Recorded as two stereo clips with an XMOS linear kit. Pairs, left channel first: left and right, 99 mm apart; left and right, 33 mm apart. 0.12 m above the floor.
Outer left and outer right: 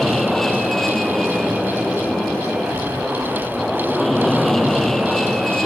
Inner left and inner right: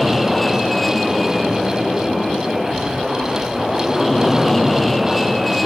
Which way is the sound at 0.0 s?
5° left (ahead or behind).